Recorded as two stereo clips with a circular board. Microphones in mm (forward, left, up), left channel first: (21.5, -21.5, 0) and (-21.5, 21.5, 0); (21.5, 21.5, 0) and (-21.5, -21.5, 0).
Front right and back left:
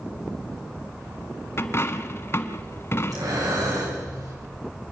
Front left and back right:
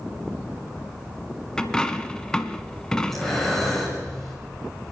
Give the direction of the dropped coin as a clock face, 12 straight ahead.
1 o'clock.